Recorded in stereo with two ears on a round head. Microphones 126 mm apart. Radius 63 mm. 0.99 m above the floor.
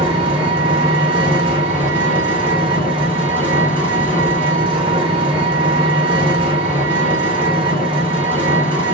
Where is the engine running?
40° right (ahead or behind), 1.1 m.